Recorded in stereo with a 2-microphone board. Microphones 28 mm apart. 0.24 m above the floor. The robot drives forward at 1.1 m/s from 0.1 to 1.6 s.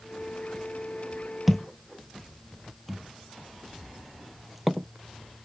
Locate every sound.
1.5 s a thud: 5° right (ahead or behind)